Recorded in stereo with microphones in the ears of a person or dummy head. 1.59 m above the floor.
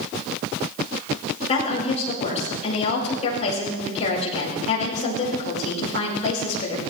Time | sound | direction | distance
1.5 | a woman speaking | 35° left (ahead or behind) | 5 m